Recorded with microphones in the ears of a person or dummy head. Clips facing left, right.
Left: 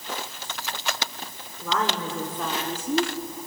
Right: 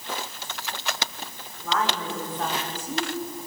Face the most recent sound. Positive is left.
turn(degrees=80)